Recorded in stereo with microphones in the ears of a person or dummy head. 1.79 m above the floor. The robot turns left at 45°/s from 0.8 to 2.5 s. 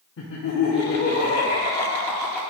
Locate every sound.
0.2 s laughter: 80° left, 0.7 m; by 2.4 s 5° left, 0.7 m